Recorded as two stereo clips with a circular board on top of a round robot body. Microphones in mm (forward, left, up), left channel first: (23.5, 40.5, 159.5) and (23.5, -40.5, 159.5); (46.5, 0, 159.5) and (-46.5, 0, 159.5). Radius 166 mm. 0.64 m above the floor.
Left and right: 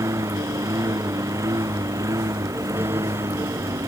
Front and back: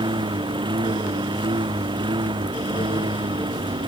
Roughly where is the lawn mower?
Behind right.